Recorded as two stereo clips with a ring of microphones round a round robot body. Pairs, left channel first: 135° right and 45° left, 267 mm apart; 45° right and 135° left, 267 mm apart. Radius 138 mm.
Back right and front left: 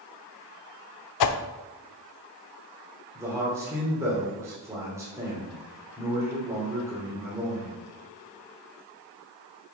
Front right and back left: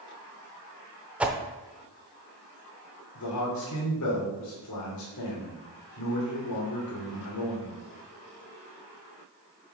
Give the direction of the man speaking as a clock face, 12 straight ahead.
1 o'clock.